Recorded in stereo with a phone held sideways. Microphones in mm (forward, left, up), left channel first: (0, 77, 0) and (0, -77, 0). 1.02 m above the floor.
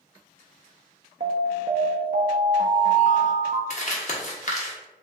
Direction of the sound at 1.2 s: 65° right (ahead or behind).